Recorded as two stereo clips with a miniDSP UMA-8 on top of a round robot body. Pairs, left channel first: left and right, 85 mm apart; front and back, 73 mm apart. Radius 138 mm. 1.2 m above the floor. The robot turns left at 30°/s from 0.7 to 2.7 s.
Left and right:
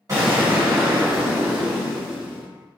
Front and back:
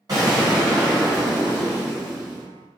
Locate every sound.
0.1 s an explosion: 140° right, 1.3 m; by 2.4 s 165° left, 1.3 m